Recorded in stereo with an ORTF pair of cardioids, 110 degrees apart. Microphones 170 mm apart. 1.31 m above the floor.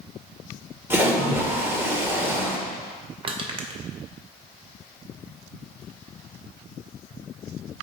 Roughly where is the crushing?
Ahead right.